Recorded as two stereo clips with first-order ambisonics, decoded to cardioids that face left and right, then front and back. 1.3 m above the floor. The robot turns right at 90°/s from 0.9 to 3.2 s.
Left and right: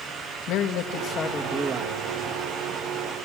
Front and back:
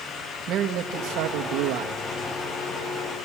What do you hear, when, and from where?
0.5 s a man speaking: 130° left, 1.7 m; by 2.0 s 130° right, 1.7 m